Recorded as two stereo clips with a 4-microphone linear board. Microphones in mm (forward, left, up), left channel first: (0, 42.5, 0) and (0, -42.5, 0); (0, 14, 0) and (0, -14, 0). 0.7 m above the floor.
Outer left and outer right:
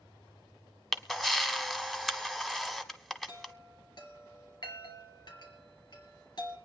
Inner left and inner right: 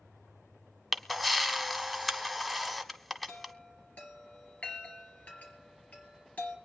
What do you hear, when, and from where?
0.9 s a camera shutter: 5° left (ahead or behind), 0.9 m
3.3 s a chime: 55° left (ahead or behind), 3.5 m